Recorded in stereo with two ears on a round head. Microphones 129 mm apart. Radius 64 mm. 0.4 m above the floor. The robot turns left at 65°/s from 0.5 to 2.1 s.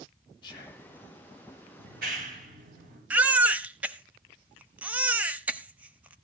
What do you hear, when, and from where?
0.4 s whispering: 30° left (ahead or behind), 5 m; by 0.9 s 5° left (ahead or behind), 5 m
1.8 s a clap: 80° right, 7 m; by 3.0 s 65° right (ahead or behind), 7 m
3.1 s a baby crying: 10° right (ahead or behind), 0.9 m